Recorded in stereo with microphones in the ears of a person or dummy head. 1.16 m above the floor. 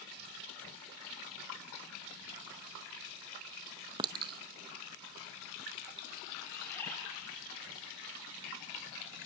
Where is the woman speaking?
No woman speaking in this recording.